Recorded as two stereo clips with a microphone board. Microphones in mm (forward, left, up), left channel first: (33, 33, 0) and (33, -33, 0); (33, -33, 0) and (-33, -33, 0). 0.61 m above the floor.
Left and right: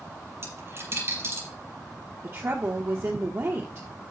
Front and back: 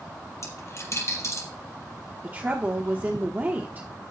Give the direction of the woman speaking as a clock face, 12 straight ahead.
4 o'clock.